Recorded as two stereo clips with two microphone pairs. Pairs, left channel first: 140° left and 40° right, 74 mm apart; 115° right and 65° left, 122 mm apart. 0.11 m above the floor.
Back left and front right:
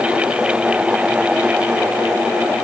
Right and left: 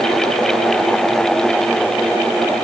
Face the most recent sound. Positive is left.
No sound to turn to.